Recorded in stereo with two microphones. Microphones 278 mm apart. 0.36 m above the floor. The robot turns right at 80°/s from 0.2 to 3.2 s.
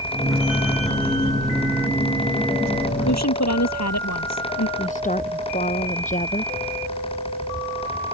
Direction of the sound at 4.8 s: 25° left (ahead or behind).